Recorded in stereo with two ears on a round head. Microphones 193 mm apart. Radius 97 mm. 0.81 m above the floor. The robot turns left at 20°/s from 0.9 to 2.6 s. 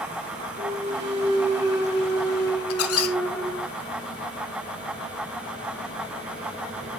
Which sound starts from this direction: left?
A squeak, at 2.7 s.